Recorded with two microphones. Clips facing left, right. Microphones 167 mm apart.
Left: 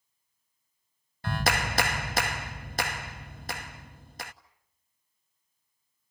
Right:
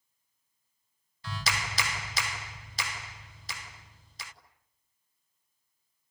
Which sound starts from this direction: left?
A clap, at 1.2 s.